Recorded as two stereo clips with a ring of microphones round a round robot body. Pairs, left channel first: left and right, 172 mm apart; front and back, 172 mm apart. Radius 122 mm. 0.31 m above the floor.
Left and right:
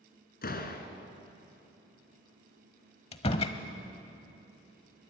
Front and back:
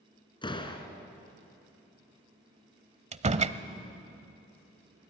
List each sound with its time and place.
0.4 s a door slam: 60° left, 2.5 m
3.1 s a door slam: 145° left, 1.1 m